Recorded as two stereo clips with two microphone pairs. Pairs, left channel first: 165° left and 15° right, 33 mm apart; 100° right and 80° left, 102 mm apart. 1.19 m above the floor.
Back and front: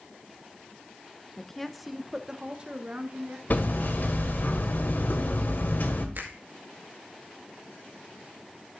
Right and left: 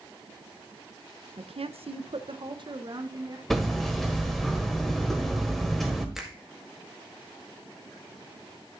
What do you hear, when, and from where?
1.4 s a woman speaking: 95° left, 0.8 m; by 3.4 s 30° left, 1.2 m
3.5 s hammering: 175° left, 1.6 m
6.2 s a finger snap: 5° right, 1.9 m